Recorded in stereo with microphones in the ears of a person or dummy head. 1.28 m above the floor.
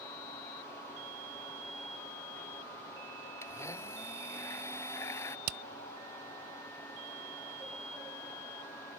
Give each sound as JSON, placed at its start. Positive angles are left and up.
{"t": 3.4, "sound": "a blender", "side_deg": 15}
{"t": 5.5, "sound": "hammering", "side_deg": -50}